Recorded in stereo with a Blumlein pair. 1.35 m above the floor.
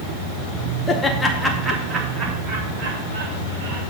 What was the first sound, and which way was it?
Laughter, 15° left.